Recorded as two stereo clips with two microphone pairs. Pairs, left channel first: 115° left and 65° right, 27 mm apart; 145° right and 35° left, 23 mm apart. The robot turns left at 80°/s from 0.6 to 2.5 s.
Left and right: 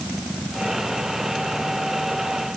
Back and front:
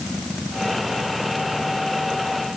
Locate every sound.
Only background noise.